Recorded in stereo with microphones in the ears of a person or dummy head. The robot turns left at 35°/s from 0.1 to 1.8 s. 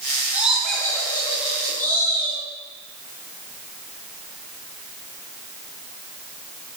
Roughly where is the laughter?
Behind.